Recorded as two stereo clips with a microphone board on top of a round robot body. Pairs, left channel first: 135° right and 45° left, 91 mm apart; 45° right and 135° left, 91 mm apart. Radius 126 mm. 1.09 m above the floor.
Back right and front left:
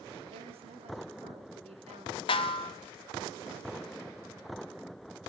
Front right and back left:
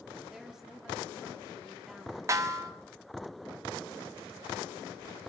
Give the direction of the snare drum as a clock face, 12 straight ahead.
6 o'clock.